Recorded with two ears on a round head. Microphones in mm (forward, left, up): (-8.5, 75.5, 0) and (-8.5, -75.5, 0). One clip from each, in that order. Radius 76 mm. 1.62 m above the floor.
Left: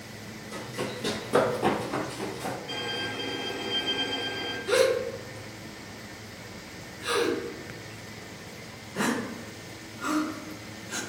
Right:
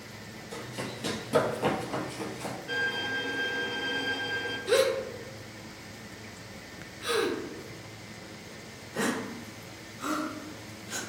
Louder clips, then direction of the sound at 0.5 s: Left 4 dB; 30° right (ahead or behind).